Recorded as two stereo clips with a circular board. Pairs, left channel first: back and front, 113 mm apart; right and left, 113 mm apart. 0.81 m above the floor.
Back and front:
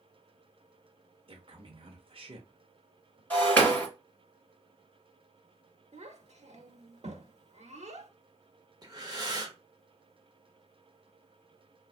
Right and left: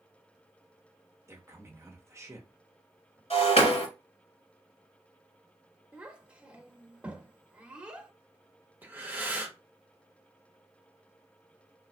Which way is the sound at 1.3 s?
25° left.